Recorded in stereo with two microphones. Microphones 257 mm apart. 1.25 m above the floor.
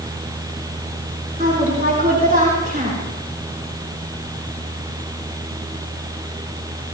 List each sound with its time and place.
1.4 s a woman speaking: 35° right (ahead or behind), 4 m